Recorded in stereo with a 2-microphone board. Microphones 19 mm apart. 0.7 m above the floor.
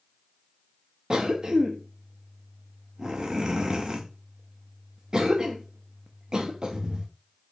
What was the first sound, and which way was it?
A cough, 40° right (ahead or behind).